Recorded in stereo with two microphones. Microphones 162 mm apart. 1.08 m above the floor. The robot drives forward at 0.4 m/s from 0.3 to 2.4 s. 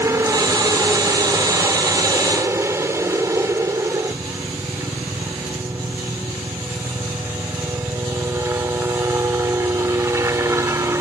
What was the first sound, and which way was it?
A helicopter, 15° right (ahead or behind).